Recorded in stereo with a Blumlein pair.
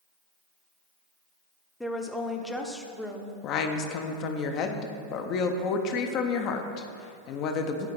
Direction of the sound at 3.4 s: 35° left.